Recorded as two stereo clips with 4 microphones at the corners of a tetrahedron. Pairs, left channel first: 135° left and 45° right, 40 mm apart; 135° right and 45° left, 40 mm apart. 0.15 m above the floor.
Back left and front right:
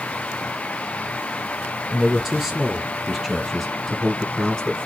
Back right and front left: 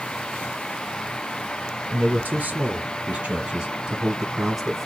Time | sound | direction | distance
1.9 | a man speaking | 35° left | 1.8 m